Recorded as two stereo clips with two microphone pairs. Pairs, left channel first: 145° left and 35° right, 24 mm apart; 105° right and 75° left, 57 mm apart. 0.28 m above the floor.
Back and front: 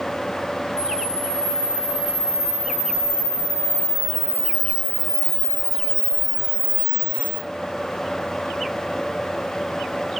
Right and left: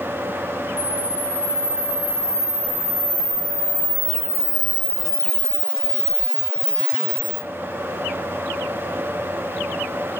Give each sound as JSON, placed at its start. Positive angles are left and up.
{"t": 0.8, "sound": "a camera shutter", "azimuth_deg": -70, "distance_m": 2.5}